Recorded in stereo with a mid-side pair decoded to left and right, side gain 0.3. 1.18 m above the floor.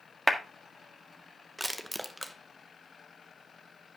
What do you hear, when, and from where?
0.3 s a clap: 15° right, 1.6 m
1.6 s crushing: 15° right, 1.0 m